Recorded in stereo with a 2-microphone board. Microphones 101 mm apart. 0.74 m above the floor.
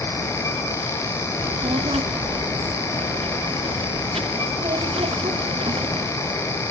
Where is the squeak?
I don't hear a squeak.